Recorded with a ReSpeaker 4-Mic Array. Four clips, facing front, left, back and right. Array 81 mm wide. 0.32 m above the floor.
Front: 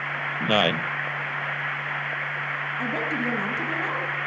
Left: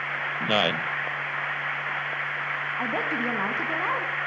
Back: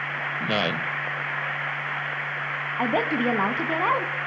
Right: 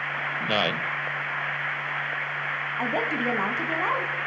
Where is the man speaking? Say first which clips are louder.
Left 2 dB, front 4 dB; 20° left, 0.9 m.